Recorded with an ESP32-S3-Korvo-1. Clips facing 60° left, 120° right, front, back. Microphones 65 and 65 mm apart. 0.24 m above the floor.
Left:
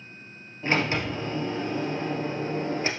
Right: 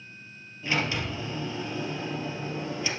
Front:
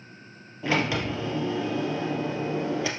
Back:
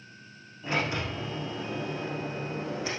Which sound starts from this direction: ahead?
A sliding door, at 0.6 s.